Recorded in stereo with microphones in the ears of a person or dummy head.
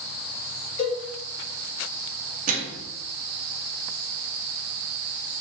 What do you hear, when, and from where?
0.8 s a cowbell: 35° left (ahead or behind), 1.2 m
2.5 s a microwave: 45° right (ahead or behind), 0.7 m